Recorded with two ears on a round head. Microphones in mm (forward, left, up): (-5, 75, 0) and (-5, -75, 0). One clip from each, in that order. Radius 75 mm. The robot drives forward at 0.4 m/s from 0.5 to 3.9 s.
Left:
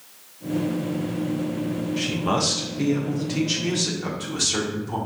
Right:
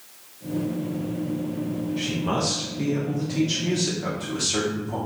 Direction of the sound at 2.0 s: 35° left (ahead or behind).